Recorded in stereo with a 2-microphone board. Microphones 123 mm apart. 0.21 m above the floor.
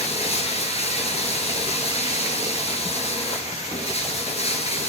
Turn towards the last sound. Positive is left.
turn(degrees=60)  # may be behind; listen again after turning